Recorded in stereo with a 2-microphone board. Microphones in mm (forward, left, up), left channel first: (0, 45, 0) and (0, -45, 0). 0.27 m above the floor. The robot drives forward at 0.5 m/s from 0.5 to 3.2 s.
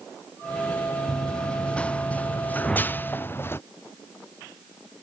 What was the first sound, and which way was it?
Running footsteps, 5° left (ahead or behind).